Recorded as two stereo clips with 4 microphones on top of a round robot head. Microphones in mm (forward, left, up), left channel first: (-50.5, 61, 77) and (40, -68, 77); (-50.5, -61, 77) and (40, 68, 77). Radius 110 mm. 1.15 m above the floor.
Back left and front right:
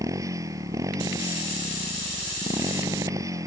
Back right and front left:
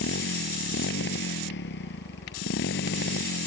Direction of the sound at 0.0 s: 125° right.